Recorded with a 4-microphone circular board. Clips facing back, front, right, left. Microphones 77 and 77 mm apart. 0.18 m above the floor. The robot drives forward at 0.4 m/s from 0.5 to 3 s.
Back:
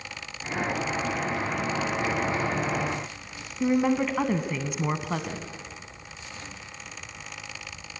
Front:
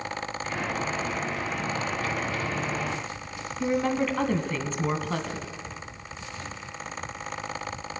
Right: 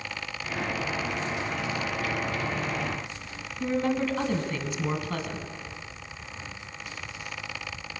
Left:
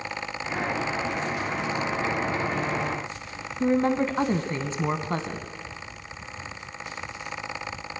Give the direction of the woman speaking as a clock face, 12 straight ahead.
8 o'clock.